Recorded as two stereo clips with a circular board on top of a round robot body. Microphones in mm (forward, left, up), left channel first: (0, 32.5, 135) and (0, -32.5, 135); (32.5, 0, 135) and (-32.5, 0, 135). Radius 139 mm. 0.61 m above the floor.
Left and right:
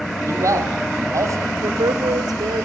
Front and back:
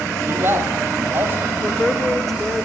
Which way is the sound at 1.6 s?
90° right.